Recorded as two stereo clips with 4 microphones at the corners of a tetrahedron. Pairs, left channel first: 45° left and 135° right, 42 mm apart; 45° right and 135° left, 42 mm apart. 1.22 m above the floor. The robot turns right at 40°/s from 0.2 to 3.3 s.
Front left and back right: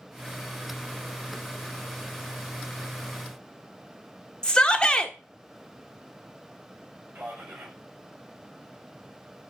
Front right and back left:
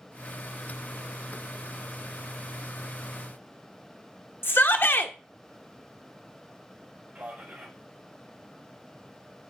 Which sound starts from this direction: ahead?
A shout, at 4.4 s.